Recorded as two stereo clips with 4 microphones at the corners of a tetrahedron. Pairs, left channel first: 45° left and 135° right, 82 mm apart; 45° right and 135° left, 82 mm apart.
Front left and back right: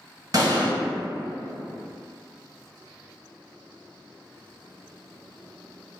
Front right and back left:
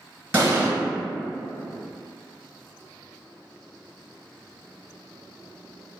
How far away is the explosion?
About 1.6 m.